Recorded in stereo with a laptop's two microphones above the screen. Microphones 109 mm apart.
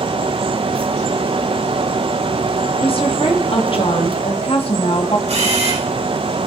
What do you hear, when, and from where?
0.0 s a fan: 55° right (ahead or behind), 1.0 m
2.8 s a woman speaking: 55° left (ahead or behind), 2.5 m
5.3 s a camera shutter: 85° right, 10 m